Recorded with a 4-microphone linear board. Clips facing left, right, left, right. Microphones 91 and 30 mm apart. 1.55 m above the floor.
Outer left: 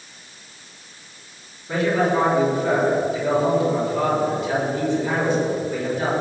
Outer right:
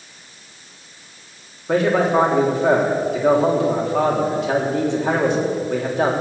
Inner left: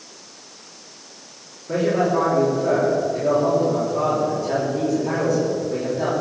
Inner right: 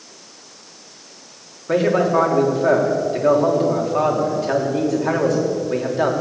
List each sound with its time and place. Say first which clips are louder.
1.7 s a man speaking: outer right 3 dB, inner right 3 dB; 75° right (ahead or behind), 3 m